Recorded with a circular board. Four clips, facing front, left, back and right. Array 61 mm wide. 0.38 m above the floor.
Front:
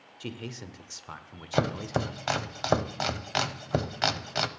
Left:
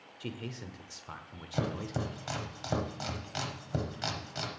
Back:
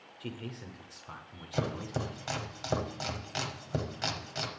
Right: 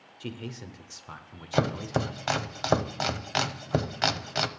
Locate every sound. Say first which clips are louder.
0.2 s a man speaking: right 2 dB, front 3 dB; 10° right, 0.8 m
1.5 s chopping: right 8 dB, front 6 dB; 50° right, 0.7 m